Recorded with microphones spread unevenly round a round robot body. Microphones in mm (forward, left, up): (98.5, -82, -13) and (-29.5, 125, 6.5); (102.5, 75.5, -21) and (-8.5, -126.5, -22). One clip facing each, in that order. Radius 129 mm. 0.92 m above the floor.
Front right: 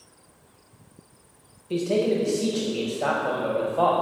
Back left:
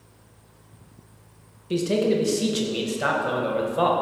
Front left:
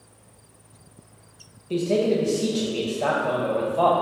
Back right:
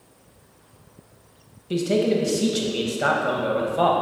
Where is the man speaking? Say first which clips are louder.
Back left 1 dB, back right 1 dB; straight behind, 0.7 m.